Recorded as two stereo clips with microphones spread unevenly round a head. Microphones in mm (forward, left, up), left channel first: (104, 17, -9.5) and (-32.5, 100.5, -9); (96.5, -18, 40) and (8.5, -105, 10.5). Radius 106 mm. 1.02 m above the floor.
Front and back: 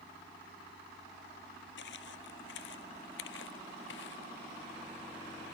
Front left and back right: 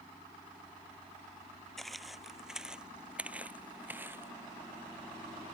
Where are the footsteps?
40° right; by 4.3 s 60° right.